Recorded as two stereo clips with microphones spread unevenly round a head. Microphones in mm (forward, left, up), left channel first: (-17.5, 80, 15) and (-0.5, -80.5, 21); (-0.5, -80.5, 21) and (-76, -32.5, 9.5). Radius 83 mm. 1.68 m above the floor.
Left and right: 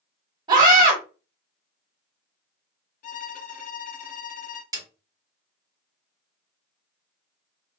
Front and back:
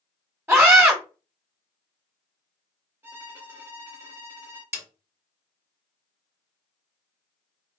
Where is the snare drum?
150° right, 1.6 m.